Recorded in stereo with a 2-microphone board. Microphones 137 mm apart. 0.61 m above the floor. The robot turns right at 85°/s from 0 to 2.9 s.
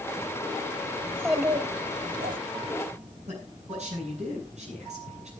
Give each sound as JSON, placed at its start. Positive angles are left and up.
{"t": 1.0, "sound": "a child speaking", "azimuth_deg": 160, "distance_m": 1.6}
{"t": 3.3, "sound": "a man speaking", "side_deg": -55, "distance_m": 8.0}